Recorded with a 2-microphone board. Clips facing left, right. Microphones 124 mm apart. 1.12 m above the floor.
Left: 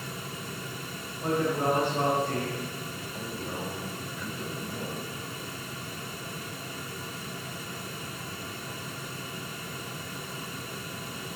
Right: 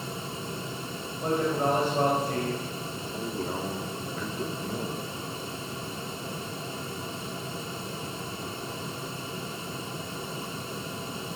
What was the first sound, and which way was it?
A man speaking, 30° right (ahead or behind).